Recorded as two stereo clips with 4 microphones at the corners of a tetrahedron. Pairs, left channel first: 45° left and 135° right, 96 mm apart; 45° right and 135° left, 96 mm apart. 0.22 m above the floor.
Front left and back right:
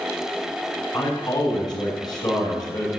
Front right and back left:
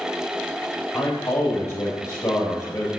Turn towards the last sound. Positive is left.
turn(degrees=10)